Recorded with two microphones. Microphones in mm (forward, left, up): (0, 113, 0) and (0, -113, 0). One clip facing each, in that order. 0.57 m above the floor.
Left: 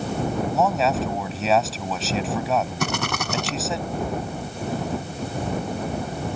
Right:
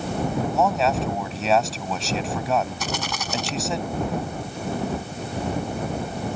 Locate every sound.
0.5 s a man speaking: centre (ahead or behind)
2.8 s a rattle: 65° left (ahead or behind)